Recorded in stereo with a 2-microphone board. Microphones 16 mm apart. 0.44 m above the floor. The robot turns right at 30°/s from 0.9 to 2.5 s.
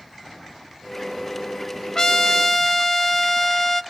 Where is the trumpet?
35° left (ahead or behind), 0.6 m; by 3.8 s 20° left (ahead or behind), 0.6 m.